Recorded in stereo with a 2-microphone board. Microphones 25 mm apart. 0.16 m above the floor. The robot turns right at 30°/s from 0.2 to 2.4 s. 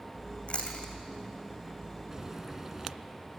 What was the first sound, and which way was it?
Chewing, 45° left (ahead or behind).